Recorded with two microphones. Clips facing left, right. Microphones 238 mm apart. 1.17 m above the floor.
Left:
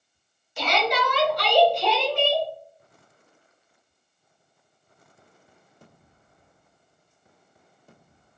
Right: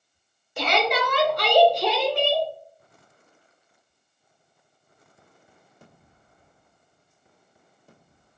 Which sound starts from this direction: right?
A shout, at 0.6 s.